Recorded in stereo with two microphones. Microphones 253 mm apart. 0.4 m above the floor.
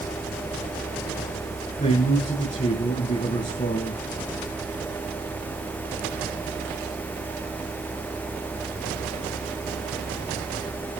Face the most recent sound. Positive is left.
turn(degrees=30)  # may be behind; listen again after turning